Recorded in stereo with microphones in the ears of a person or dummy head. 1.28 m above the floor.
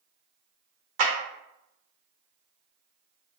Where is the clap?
40° right (ahead or behind), 1.0 m.